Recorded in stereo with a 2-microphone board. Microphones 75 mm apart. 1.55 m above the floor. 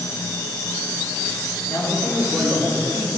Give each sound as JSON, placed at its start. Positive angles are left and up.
{"t": 1.7, "sound": "a man speaking", "side_deg": 20, "distance_m": 3.0}